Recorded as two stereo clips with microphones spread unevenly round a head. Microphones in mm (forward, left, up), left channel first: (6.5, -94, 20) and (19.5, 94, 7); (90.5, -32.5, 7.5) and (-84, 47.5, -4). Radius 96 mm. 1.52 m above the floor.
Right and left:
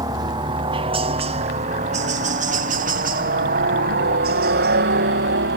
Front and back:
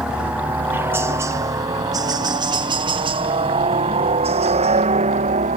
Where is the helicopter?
80° left; by 5.6 s 105° left.